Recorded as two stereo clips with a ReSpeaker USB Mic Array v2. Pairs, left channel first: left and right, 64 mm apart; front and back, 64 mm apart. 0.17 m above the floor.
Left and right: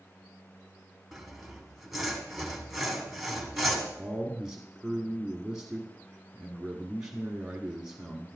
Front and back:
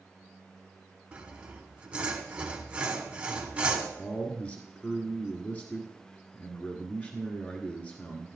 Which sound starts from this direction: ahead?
A man speaking, at 4.0 s.